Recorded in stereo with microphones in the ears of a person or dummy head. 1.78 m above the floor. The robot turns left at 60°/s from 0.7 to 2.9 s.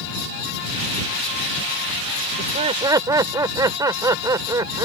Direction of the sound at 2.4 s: 130° right.